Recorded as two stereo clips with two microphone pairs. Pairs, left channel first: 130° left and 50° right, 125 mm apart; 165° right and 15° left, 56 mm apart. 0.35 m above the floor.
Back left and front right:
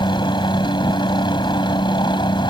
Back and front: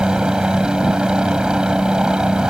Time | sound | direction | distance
0.0 | a helicopter | 90° left | ?